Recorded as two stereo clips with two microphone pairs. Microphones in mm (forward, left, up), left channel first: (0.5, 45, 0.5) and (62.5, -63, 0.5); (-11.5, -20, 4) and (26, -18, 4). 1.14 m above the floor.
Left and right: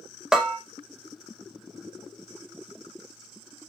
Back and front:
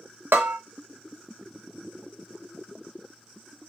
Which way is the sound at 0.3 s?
25° left.